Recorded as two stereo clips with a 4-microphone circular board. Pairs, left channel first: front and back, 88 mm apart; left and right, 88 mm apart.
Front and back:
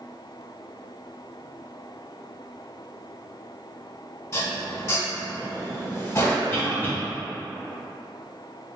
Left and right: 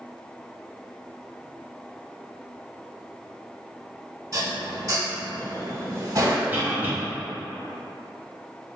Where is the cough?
40° right, 1.0 m.